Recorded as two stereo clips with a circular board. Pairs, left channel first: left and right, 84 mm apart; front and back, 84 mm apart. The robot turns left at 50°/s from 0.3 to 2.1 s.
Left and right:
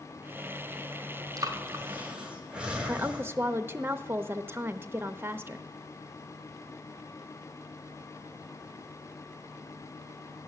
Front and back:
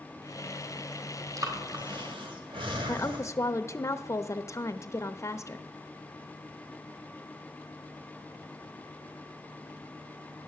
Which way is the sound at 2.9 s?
40° right.